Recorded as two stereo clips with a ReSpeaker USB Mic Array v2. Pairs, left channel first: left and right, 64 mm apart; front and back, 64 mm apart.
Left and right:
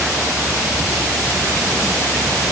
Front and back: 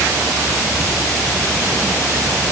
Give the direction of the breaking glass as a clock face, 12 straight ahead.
No breaking glass in this recording.